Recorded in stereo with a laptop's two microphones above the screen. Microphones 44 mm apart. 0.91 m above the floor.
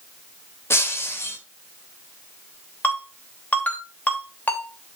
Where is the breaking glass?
70° left (ahead or behind), 1.6 m.